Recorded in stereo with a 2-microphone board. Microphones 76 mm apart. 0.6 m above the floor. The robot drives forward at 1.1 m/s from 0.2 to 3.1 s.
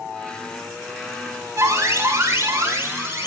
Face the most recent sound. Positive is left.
turn(degrees=-35)  # may be behind; listen again after turning